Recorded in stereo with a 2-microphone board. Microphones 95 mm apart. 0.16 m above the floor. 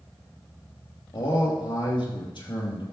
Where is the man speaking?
60° left (ahead or behind), 4.5 m.